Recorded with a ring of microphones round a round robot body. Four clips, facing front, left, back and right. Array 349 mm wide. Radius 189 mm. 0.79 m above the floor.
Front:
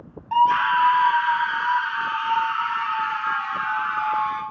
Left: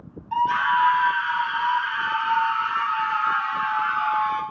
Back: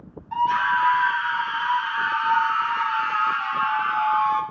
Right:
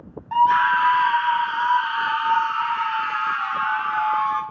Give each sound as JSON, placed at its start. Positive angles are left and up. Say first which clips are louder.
{"t": 0.3, "sound": "a scream", "louder": "right 4 dB, front 3 dB", "azimuth_deg": -45, "distance_m": 2.0}